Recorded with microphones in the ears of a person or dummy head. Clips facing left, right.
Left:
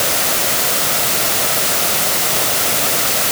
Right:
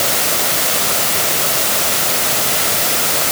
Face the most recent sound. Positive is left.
No sound to turn to.